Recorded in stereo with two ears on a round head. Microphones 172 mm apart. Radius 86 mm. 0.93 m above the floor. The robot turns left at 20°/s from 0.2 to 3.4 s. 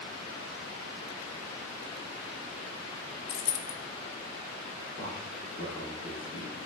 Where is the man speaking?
85° right, 3 m.